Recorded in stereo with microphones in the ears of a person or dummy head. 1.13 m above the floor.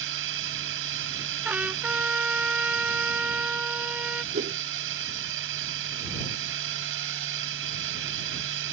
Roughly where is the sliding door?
I don't hear a sliding door.